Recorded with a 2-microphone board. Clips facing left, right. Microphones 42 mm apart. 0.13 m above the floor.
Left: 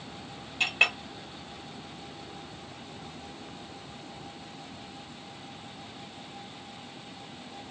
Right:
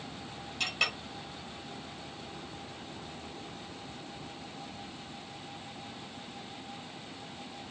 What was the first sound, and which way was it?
A clink, 35° left (ahead or behind).